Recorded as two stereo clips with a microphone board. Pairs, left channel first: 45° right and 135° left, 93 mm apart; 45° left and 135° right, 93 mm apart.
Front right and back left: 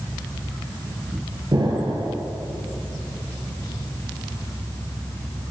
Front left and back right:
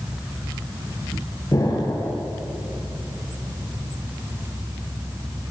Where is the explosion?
95° left, 4.5 m.